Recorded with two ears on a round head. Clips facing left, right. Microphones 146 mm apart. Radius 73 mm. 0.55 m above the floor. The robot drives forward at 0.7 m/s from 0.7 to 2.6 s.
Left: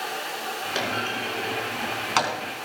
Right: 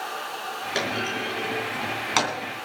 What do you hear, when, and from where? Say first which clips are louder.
0.8 s a clunk: right 2 dB; 5° right (ahead or behind), 4.5 m; by 2.3 s 10° right (ahead or behind), 3 m